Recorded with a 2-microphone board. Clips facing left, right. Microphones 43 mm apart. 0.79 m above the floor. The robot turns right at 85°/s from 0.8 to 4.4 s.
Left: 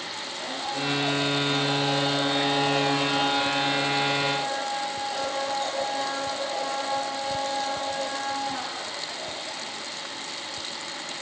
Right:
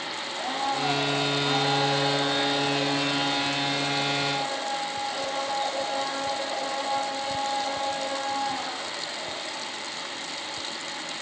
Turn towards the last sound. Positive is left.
turn(degrees=-170)